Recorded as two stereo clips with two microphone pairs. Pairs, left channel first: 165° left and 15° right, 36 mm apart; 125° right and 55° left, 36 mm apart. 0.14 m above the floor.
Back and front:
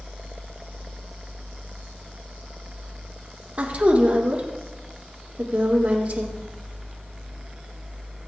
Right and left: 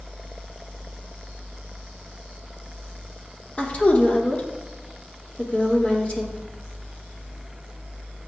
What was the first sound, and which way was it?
A woman speaking, 70° right.